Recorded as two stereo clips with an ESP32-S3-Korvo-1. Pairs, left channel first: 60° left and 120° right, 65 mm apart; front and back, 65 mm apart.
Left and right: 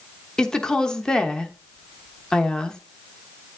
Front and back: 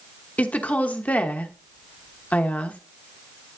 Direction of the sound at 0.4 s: Straight ahead.